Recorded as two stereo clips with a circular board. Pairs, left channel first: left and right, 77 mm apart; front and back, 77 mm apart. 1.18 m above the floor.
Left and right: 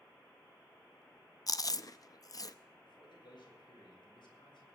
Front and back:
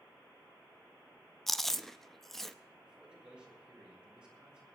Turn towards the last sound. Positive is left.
turn(degrees=105)